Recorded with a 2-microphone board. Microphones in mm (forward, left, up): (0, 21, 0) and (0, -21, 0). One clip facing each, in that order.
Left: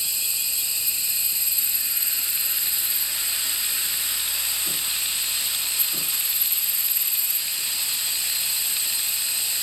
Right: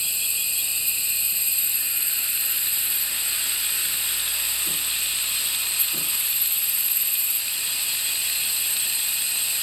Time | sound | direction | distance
0.0 | an insect | 35° right (ahead or behind) | 4 m